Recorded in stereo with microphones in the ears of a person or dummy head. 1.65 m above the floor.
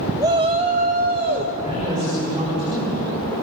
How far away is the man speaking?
About 7 m.